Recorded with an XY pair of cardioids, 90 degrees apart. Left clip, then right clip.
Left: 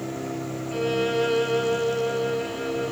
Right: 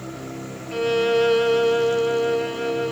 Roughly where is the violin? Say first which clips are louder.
Right 5 dB; ahead right.